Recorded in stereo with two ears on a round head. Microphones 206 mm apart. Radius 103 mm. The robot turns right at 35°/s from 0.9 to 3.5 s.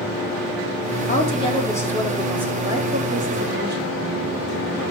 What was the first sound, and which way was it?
A woman speaking, 145° left.